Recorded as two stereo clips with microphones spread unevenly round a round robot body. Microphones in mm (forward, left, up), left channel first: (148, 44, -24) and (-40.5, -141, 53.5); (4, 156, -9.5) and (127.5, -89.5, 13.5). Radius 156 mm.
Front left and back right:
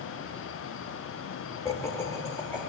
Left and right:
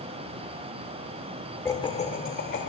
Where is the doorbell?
I don't hear a doorbell.